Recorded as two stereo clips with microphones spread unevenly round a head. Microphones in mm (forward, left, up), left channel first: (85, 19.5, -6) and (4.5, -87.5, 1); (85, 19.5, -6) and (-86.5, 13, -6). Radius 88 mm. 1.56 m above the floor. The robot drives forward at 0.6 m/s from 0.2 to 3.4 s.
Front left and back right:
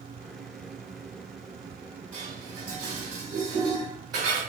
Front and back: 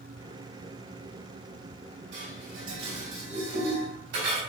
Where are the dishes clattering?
160° left, 2.5 m; by 4.4 s 165° left, 3 m.